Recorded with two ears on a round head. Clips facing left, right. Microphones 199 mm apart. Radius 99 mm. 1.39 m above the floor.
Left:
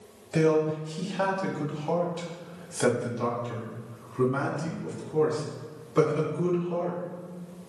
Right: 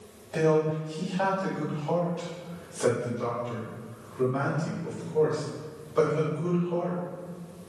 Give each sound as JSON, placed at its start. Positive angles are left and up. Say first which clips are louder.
{"t": 0.3, "sound": "a man speaking", "louder": "left 1 dB", "side_deg": 40, "distance_m": 2.0}